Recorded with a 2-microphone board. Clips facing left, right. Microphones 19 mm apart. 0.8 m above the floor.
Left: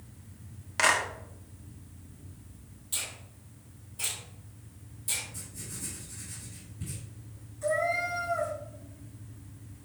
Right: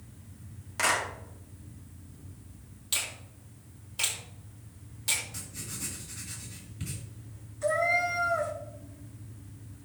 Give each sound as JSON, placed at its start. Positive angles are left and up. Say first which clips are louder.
{"t": 0.8, "sound": "a clap", "louder": "left 3 dB", "side_deg": 25, "distance_m": 1.5}
{"t": 2.9, "sound": "a finger snap", "louder": "right 4 dB", "side_deg": -55, "distance_m": 1.7}
{"t": 5.3, "sound": "writing", "louder": "right 2 dB", "side_deg": -65, "distance_m": 2.5}
{"t": 7.6, "sound": "a cat meowing", "louder": "right 2 dB", "side_deg": -25, "distance_m": 1.7}